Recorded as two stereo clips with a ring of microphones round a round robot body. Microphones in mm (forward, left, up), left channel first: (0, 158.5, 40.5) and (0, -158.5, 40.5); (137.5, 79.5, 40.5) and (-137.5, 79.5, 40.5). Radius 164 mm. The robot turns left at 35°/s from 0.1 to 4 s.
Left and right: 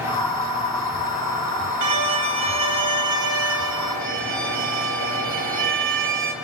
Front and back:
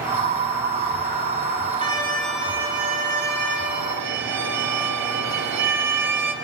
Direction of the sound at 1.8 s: 75° right.